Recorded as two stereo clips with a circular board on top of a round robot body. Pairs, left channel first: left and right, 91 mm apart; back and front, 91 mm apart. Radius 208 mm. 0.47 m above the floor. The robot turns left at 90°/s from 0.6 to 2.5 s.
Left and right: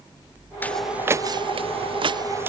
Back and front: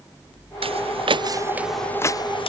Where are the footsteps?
20° left; by 2.5 s 160° right.